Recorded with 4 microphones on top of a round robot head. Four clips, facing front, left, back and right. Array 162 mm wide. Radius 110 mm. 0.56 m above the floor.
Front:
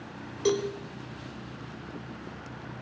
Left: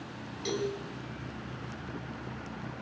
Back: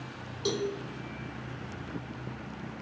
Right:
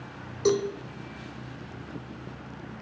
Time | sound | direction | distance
0.5 | a cowbell | 65° right | 0.9 m